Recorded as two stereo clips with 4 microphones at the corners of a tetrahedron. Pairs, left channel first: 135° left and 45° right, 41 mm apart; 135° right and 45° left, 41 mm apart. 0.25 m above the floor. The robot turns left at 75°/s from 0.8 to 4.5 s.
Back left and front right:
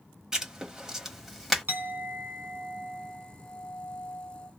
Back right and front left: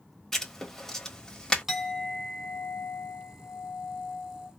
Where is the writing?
80° right, 1.2 m; by 1.6 s 140° right, 1.2 m.